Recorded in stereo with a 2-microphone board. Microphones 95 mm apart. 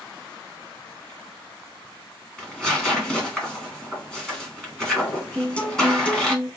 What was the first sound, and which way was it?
Tearing paper, 5° left (ahead or behind).